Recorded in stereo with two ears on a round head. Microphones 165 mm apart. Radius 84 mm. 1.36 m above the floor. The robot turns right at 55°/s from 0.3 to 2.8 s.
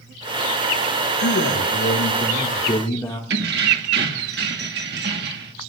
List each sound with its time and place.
1.2 s a man speaking: 80° left, 1.9 m; by 3.2 s 165° left, 1.9 m
3.3 s keys jangling: 60° right (ahead or behind), 1.4 m